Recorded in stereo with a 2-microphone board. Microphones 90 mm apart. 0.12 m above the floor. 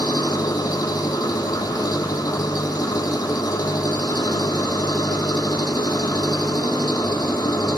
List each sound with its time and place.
0.0 s an engine running: 45° left (ahead or behind), 0.9 m